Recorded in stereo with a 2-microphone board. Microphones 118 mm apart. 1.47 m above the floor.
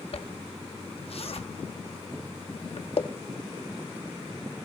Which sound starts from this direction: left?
A zipper, at 0.1 s.